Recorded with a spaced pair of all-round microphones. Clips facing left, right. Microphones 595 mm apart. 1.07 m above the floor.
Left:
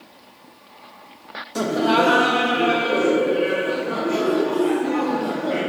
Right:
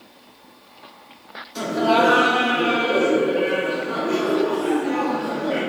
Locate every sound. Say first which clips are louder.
1.6 s laughter: left 1 dB; 70° left (ahead or behind), 0.6 m; by 5.6 s 35° right (ahead or behind), 3 m